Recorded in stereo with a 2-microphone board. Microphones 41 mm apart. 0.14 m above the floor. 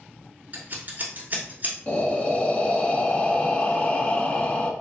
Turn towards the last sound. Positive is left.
turn(degrees=25)  # may be behind; listen again after turning